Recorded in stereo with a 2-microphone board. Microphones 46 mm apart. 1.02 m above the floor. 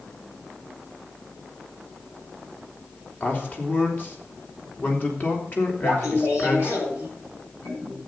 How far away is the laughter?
About 6 m.